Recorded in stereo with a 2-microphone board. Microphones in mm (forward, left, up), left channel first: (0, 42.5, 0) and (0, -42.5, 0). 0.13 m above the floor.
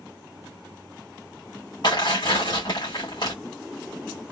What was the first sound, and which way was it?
Tearing paper, 60° left (ahead or behind).